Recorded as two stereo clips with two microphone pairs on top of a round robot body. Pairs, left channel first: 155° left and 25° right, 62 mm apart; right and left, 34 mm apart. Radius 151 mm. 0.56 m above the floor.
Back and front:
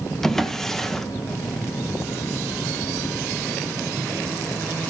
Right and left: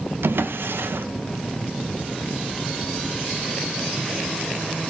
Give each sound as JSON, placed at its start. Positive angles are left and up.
{"t": 0.2, "sound": "a drawer", "azimuth_deg": 75, "distance_m": 0.8}